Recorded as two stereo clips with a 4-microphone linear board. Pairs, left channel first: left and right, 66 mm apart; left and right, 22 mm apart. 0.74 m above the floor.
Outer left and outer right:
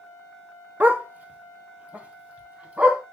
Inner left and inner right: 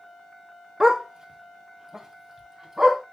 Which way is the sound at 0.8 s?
30° right (ahead or behind).